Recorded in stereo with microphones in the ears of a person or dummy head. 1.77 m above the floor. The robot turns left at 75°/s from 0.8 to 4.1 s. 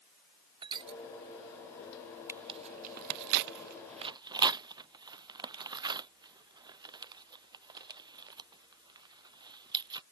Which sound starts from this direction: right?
Crushing, at 0.6 s.